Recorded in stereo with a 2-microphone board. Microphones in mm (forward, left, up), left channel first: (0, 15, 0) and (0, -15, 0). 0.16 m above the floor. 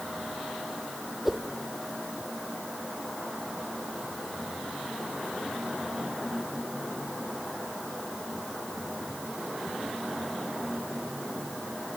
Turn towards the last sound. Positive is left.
turn(degrees=-5)  # may be behind; listen again after turning